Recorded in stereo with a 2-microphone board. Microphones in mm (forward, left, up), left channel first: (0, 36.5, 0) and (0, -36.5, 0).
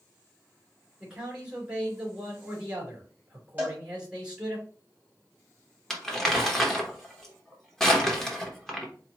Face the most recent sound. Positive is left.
turn(degrees=5)  # may be behind; listen again after turning